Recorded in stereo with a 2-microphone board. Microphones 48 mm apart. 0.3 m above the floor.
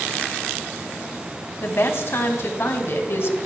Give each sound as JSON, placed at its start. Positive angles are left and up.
{"t": 1.6, "sound": "a woman speaking", "side_deg": 55, "distance_m": 1.7}